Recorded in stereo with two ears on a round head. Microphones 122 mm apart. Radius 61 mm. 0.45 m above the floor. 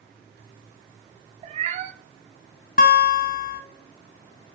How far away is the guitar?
About 0.7 m.